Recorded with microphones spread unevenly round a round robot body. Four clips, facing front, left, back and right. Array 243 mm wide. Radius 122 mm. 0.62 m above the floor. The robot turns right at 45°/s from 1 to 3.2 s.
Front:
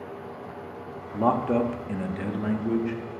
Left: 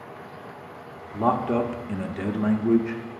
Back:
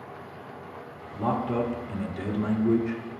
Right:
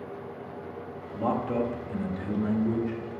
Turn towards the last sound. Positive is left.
turn(degrees=125)